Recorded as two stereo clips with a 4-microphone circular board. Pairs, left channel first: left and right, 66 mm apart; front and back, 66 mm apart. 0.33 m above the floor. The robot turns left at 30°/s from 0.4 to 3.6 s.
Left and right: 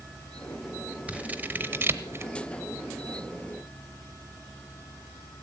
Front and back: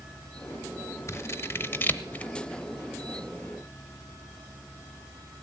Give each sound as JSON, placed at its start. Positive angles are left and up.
{"t": 1.1, "sound": "scissors", "azimuth_deg": -25, "distance_m": 0.8}